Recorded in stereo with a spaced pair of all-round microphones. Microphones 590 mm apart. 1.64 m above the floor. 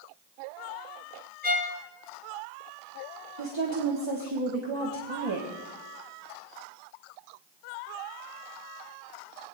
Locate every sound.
1.4 s a violin: 15° right (ahead or behind), 1.2 m
3.4 s a woman speaking: 50° right (ahead or behind), 1.5 m